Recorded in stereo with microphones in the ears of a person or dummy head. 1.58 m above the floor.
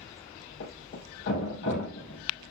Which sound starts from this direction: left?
A thud, at 0.6 s.